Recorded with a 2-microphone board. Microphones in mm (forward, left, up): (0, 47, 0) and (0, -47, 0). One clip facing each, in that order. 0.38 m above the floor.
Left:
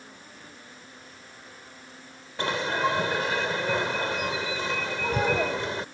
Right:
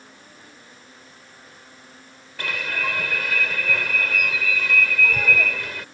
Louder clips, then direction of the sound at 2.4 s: Left 3 dB; 25° left (ahead or behind).